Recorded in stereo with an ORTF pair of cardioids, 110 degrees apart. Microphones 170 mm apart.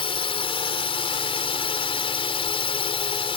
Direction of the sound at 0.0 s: 35° left.